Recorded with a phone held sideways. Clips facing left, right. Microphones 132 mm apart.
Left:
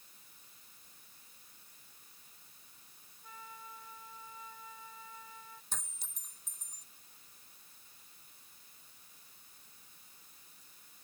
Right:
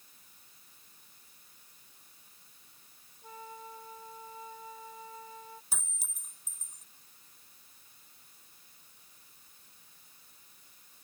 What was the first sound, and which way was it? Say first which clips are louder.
A flute: right 6 dB; 35° right (ahead or behind).